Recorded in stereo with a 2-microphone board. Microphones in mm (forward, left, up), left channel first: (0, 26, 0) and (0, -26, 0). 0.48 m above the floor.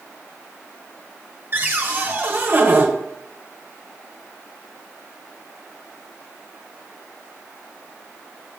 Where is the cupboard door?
35° right (ahead or behind), 1.3 m.